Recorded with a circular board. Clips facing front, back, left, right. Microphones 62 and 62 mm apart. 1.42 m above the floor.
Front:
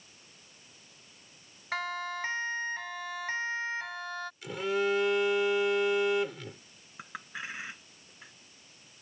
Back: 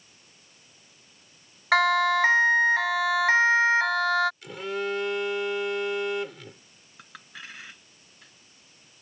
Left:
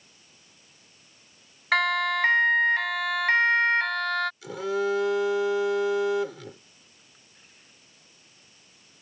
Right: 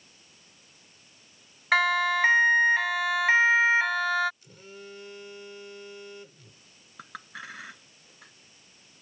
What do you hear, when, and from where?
1.7 s a siren: straight behind; by 4.3 s 175° right
4.4 s a phone buzzing: 90° left
7.0 s a clink: 70° right